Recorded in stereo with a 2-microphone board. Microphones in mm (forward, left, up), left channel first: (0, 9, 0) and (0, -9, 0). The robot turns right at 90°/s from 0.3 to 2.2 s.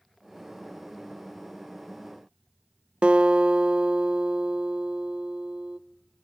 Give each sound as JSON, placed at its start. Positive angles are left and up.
{"t": 3.0, "sound": "a guitar", "side_deg": -65, "distance_m": 0.8}